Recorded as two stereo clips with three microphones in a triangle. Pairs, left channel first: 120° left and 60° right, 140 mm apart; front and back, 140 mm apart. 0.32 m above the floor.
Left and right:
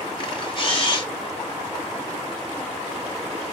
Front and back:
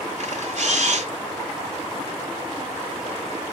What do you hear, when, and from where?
0.2 s a camera shutter: 165° left, 1.4 m